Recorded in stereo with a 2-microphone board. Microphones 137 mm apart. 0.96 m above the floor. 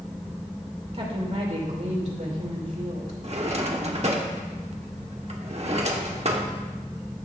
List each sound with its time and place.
0.9 s a woman speaking: 45° right (ahead or behind), 2.5 m; by 3.1 s 70° right (ahead or behind), 3 m
3.2 s a drawer: 50° right (ahead or behind), 1.3 m